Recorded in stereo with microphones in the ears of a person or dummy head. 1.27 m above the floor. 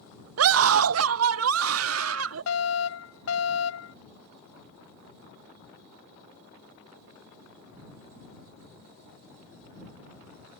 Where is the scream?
80° right; by 2.4 s 85° right.